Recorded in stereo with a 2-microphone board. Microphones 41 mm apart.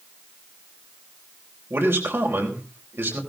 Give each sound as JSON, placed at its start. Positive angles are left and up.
{"t": 1.7, "sound": "a man speaking", "side_deg": -70, "distance_m": 4.0}